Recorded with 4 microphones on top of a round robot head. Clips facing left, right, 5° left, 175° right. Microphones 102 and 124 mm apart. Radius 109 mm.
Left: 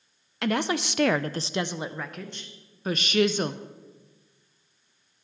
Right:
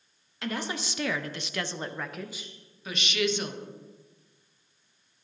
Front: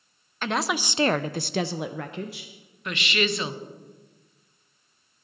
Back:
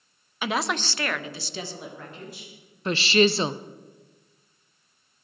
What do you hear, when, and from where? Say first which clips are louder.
0.4 s a woman speaking: left 7 dB, even; 105° left, 0.7 m; by 2.5 s 10° right, 1.1 m
2.9 s a woman speaking: left 6 dB, back 7 dB; 130° left, 0.7 m